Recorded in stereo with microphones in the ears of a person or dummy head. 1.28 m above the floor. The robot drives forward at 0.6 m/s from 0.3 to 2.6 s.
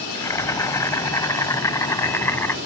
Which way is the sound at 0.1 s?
20° left (ahead or behind).